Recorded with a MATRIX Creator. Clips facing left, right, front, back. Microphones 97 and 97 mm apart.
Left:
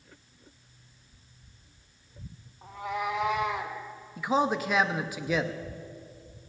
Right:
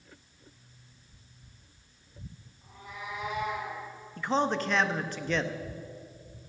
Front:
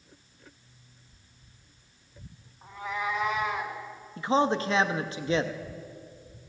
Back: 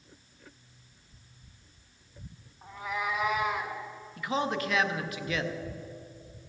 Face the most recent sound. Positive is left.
turn(degrees=15)